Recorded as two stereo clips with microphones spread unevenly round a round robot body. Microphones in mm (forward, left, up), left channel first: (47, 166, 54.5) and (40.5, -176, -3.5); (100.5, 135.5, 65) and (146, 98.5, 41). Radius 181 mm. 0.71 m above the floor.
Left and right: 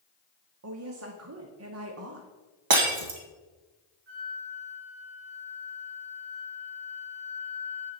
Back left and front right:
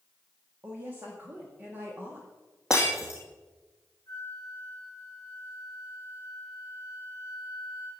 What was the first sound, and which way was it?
A woman speaking, 65° right.